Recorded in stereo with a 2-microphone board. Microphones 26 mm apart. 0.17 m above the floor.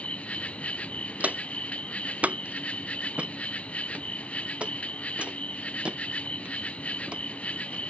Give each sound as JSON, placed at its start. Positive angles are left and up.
{"t": 0.0, "sound": "an insect", "side_deg": 60}
{"t": 1.2, "sound": "footsteps", "side_deg": -85}